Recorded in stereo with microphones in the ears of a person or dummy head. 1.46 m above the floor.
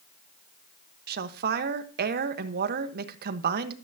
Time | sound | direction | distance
1.1 | a woman speaking | 60° right (ahead or behind) | 1.2 m